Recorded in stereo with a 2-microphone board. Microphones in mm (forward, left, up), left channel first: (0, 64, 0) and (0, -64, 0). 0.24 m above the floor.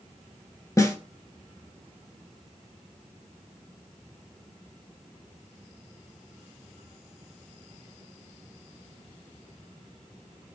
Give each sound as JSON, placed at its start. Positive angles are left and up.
{"t": 0.8, "sound": "a snare drum", "side_deg": 25, "distance_m": 0.6}